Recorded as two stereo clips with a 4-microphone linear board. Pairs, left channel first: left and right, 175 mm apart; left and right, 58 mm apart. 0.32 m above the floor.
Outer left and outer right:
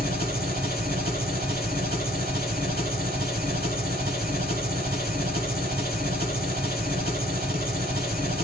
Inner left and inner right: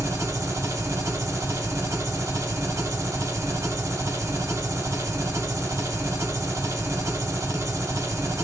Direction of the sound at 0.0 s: 65° right (ahead or behind).